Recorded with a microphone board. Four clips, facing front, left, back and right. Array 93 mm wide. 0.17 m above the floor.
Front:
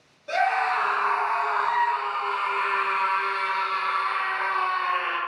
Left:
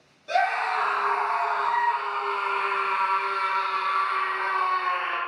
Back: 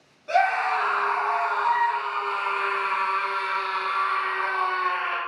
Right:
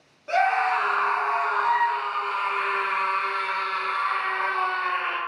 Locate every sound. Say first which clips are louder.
0.3 s a scream: right 2 dB, back 1 dB; 105° right, 1.4 m; by 5.2 s 60° right, 3.5 m